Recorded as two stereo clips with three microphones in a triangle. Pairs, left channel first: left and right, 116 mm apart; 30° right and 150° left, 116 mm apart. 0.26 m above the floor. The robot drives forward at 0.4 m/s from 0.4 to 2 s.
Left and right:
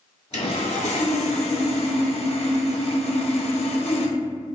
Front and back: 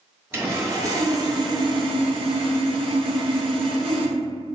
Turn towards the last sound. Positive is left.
turn(degrees=115)